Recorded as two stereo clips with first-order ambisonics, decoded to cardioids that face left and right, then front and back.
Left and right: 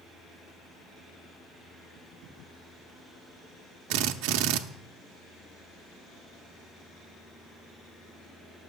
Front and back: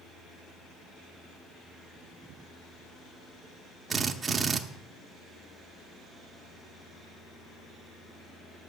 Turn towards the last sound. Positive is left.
turn(degrees=-105)